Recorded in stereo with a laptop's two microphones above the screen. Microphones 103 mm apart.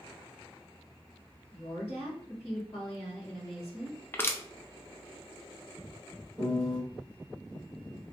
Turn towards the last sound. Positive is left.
turn(degrees=15)  # may be behind; listen again after turning